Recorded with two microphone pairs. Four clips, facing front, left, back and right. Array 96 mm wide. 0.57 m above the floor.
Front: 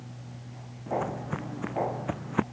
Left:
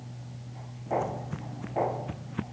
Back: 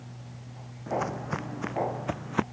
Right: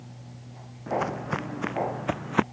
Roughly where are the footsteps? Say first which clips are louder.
Right 2 dB, even; behind right.